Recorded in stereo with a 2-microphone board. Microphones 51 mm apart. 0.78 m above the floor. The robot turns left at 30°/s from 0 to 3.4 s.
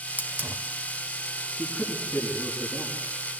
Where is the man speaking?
25° left (ahead or behind), 8 m; by 3.4 s 80° left, 8 m.